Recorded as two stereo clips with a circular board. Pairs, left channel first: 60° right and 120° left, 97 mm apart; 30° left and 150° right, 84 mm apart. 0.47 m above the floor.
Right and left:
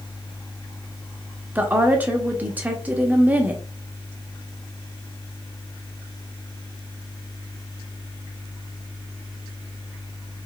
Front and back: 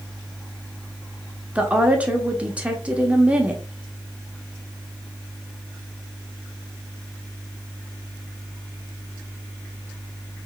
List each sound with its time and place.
1.6 s a woman speaking: 165° left, 0.9 m